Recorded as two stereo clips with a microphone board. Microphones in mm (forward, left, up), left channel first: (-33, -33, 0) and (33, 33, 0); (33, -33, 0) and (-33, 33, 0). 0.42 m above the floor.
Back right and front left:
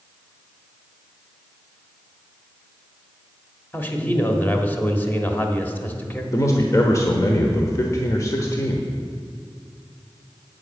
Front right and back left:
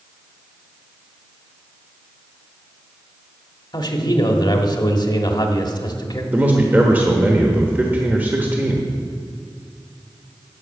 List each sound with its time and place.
3.7 s a man speaking: 70° right, 1.2 m
6.3 s a man speaking: 165° right, 1.0 m